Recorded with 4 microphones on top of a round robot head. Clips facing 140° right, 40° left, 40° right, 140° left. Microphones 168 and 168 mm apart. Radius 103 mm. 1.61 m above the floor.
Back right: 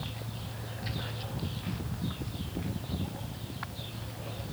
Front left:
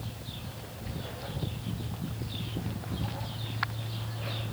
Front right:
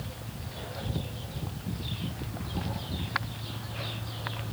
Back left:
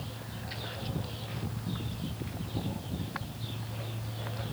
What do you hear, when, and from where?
Only background noise.